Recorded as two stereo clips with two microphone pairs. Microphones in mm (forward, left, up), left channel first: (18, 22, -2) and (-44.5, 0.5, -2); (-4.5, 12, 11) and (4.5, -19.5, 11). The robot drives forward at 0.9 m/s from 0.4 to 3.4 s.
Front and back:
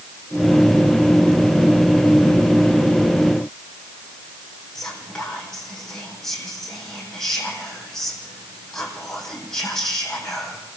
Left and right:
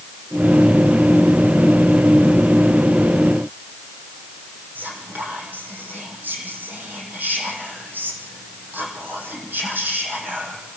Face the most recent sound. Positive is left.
turn(degrees=-65)